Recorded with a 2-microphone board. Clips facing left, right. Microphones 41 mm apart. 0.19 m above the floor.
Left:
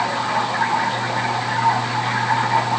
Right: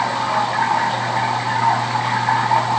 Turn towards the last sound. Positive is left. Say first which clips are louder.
# right 2 dB
turn(degrees=-45)  # may be behind; listen again after turning